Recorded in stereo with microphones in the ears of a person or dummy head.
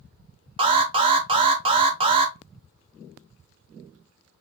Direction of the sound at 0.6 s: 30° right (ahead or behind).